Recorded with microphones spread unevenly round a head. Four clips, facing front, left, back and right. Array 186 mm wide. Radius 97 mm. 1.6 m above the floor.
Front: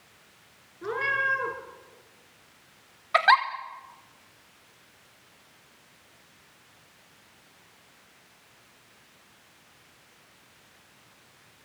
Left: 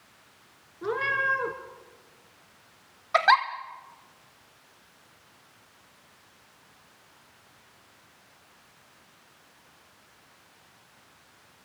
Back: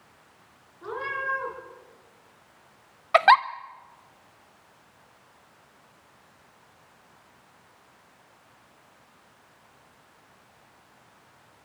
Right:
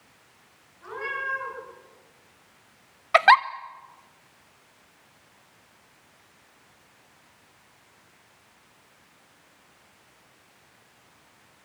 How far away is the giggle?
About 0.7 m.